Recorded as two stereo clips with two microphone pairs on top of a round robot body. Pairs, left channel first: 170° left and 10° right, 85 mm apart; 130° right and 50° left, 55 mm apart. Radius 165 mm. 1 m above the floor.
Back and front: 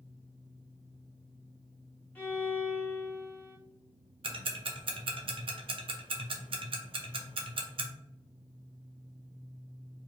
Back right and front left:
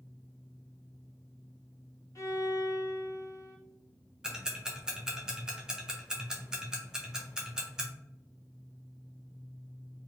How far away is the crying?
No crying in this recording.